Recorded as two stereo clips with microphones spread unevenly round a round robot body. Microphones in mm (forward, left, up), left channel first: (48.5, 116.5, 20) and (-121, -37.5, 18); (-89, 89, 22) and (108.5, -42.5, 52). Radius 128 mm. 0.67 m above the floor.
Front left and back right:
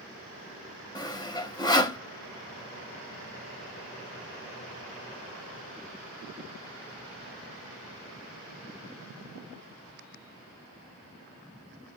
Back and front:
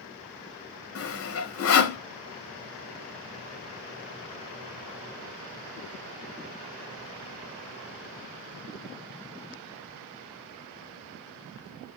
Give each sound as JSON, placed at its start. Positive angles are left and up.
{"t": 0.9, "sound": "sawing", "azimuth_deg": 115, "distance_m": 0.9}